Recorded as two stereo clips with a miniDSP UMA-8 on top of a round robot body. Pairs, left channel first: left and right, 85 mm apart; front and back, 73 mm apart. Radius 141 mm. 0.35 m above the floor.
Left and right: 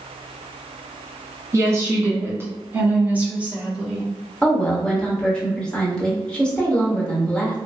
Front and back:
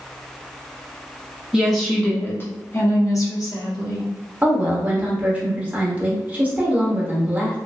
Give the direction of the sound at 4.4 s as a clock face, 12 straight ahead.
7 o'clock.